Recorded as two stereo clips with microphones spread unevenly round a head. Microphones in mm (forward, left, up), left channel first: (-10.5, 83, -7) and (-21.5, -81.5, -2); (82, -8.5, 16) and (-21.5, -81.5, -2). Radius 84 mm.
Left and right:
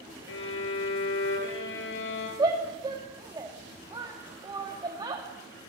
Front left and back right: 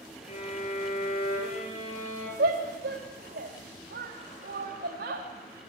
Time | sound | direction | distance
0.3 | a violin | 90° left | 4.5 m
2.4 | a shout | 160° right | 2 m